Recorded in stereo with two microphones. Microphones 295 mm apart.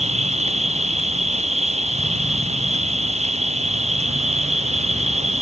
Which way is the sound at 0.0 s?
20° right (ahead or behind).